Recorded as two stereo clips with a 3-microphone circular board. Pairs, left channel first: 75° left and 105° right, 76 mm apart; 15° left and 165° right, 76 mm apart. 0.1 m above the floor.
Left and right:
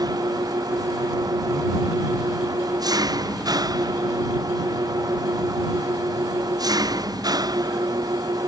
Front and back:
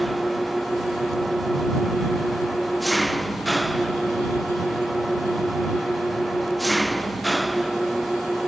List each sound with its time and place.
0.0 s an engine running: 75° right